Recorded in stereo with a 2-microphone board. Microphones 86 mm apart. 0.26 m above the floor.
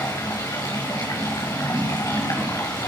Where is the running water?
45° left (ahead or behind), 4.5 m.